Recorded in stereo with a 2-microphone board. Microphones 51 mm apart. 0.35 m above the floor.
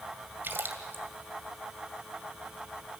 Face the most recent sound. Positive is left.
turn(degrees=-45)  # may be behind; listen again after turning